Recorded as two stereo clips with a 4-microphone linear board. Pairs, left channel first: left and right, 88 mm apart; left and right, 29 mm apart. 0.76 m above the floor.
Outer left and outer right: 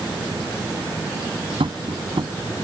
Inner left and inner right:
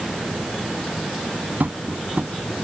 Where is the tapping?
75° right (ahead or behind).